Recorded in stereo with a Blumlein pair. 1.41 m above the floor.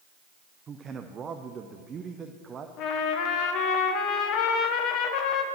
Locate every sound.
0.7 s a man speaking: 20° right, 0.6 m
2.8 s a trumpet: 35° left, 1.0 m